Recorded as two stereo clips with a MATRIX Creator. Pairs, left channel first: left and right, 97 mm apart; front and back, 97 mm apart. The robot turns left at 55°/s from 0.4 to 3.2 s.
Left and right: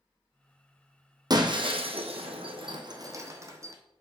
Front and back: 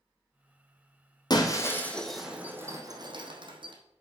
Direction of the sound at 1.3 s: 45° right.